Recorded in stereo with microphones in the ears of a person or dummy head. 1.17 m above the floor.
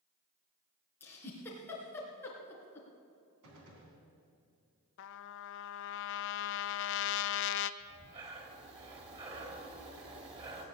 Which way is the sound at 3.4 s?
70° right (ahead or behind).